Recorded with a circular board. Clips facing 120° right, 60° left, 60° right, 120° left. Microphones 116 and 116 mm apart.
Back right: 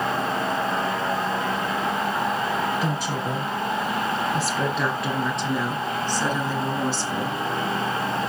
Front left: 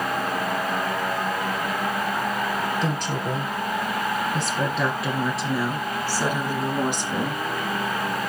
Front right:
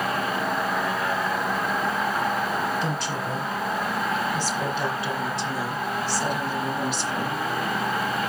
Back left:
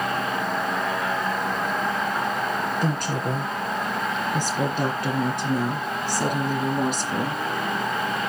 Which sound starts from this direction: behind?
A woman speaking, at 2.8 s.